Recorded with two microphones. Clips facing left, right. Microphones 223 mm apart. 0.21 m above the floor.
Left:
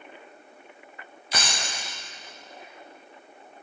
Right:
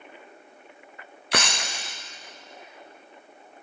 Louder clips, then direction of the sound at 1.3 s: Right 4 dB; 70° right (ahead or behind).